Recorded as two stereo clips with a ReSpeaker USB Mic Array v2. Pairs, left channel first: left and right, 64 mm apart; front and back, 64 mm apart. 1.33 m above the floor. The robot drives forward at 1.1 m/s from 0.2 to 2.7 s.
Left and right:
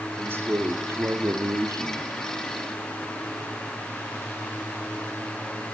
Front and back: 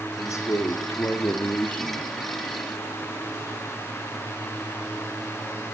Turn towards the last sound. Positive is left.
turn(degrees=-90)